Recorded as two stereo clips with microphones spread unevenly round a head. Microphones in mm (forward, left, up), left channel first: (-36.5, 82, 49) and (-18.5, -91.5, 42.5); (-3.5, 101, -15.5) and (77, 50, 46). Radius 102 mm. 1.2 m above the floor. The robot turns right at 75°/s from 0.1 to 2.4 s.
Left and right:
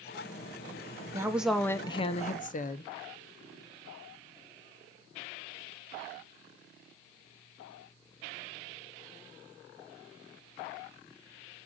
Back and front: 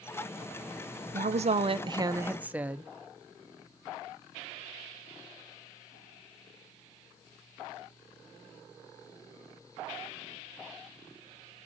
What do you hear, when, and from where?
1.1 s a woman speaking: 20° right, 0.8 m; by 2.9 s 75° left, 0.8 m